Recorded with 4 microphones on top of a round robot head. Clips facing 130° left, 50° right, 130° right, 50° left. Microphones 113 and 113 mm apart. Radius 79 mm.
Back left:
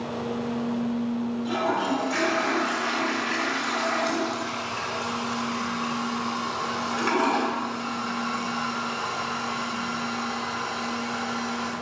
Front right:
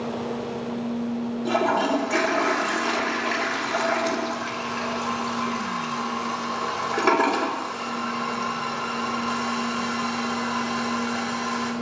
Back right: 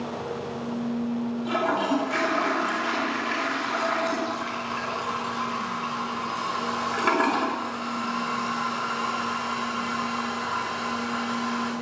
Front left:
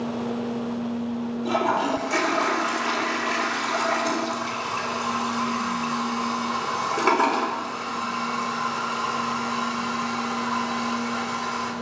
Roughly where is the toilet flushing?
Ahead.